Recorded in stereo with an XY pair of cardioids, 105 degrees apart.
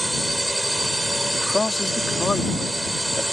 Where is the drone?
10° right.